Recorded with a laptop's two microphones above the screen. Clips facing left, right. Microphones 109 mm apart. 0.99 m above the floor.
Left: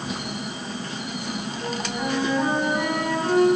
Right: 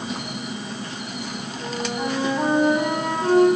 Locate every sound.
1.6 s a flute: 20° right (ahead or behind), 1.0 m